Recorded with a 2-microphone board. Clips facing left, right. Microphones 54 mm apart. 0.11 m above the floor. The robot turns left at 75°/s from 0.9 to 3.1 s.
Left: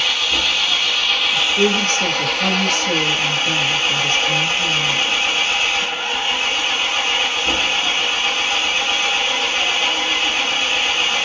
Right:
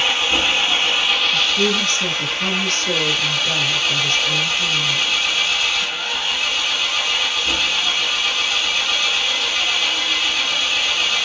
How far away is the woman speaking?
About 1.2 m.